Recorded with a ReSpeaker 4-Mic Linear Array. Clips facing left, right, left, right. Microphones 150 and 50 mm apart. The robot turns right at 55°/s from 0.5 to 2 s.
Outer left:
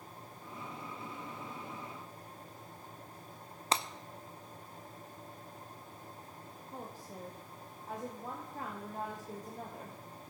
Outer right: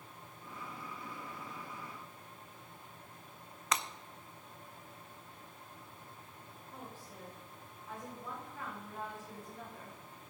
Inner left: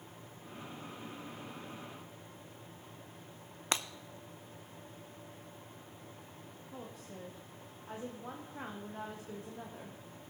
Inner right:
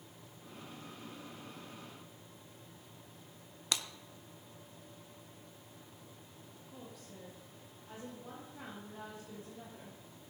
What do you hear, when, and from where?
3.7 s breaking glass: 30° left (ahead or behind), 0.6 m
6.7 s a woman speaking: 40° left (ahead or behind), 1.5 m